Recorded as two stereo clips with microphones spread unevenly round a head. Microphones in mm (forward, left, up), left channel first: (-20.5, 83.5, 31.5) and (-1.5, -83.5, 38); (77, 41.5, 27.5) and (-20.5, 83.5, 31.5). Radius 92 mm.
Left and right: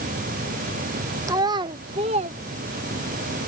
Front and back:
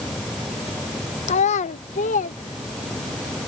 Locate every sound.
1.3 s a child speaking: 10° right; by 3.2 s 30° right